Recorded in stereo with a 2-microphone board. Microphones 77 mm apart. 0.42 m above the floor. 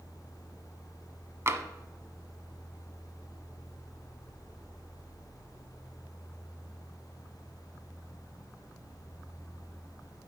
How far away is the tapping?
About 0.8 m.